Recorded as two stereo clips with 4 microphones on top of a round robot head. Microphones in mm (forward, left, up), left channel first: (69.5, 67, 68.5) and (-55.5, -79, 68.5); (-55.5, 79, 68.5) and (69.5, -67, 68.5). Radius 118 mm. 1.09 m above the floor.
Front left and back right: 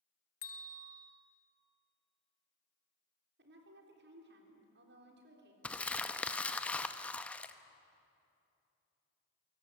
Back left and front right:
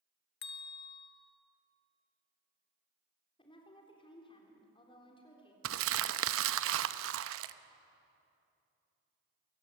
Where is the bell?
100° left, 1.5 m.